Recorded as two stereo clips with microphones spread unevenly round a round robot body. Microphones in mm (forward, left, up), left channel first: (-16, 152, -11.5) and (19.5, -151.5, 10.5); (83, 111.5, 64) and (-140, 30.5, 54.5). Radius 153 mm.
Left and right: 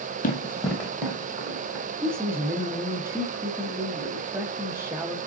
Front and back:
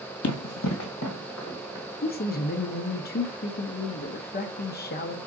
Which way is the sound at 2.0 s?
Straight ahead.